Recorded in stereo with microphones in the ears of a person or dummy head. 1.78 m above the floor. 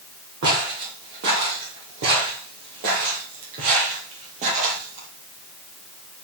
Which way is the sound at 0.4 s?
50° right (ahead or behind).